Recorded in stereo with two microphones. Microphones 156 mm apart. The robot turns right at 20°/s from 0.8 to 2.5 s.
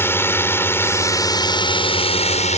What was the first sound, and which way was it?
A drone, 15° left.